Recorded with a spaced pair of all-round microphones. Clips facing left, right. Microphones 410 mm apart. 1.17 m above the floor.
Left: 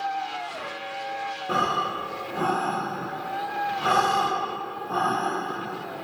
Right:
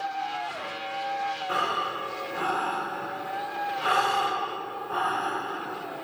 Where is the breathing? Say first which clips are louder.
Left 6 dB; 60° left (ahead or behind), 1.2 m.